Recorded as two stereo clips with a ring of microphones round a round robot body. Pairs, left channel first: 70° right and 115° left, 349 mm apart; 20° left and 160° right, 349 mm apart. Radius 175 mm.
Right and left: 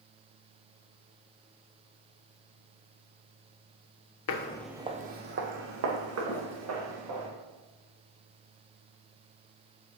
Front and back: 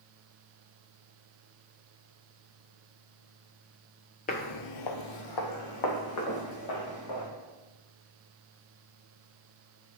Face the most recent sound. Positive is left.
turn(degrees=65)